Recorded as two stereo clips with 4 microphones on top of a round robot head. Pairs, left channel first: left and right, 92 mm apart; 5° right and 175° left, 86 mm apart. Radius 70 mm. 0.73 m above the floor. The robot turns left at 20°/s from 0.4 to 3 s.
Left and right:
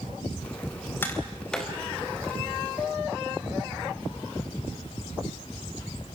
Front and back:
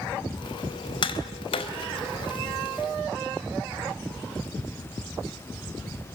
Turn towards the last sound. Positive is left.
turn(degrees=-25)